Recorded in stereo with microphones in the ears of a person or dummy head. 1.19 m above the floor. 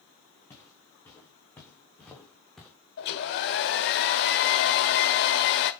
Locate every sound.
0.5 s footsteps: 15° left (ahead or behind), 6 m; by 2.7 s 5° left (ahead or behind), 2.5 m
3.0 s a hair dryer: 55° left (ahead or behind), 1.3 m